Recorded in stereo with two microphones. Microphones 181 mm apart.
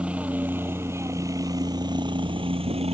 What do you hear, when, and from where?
0.0 s a helicopter: 5° right (ahead or behind); by 2.9 s 35° right (ahead or behind)